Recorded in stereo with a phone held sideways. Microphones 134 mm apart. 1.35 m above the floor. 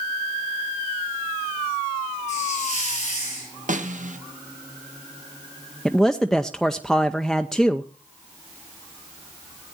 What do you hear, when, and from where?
2.3 s a hiss: 55° left (ahead or behind), 8.5 m
3.7 s a snare drum: 65° right (ahead or behind), 1.4 m
5.8 s a man speaking: 5° left (ahead or behind), 0.6 m